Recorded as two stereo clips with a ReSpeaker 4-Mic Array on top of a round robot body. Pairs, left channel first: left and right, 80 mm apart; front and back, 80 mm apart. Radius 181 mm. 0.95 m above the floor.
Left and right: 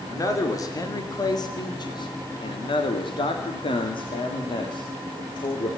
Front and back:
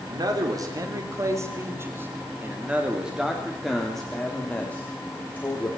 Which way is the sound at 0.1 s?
140° left.